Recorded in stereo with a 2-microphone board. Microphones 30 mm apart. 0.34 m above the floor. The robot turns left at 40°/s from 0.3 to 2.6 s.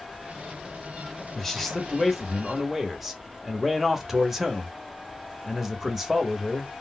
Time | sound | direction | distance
1.4 | a man speaking | 15° left (ahead or behind) | 0.9 m